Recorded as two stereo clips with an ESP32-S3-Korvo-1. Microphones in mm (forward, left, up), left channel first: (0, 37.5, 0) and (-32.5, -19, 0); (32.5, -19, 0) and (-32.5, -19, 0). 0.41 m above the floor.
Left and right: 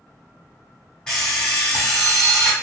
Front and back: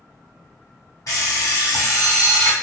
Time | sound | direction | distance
1.1 | an alarm clock | 20° right | 1.5 m